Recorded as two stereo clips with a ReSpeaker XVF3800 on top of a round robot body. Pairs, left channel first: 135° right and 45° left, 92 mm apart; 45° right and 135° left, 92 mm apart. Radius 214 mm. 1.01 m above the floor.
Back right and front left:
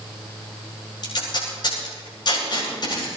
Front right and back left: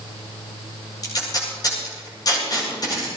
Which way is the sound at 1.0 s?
95° right.